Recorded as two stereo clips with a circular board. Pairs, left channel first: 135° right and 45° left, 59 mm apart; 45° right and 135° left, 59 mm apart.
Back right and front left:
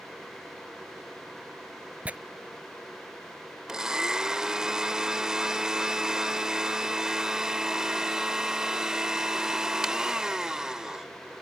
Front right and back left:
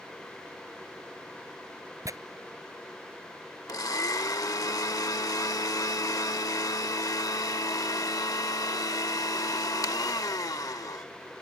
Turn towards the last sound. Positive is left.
turn(degrees=-35)